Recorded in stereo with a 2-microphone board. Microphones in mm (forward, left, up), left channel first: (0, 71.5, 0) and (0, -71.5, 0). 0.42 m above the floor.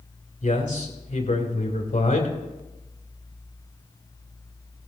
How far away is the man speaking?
About 2.5 m.